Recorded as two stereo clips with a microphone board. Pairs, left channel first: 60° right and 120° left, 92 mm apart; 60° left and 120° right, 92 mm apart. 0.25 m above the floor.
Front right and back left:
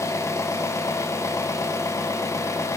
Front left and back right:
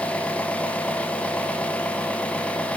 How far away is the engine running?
About 1.9 m.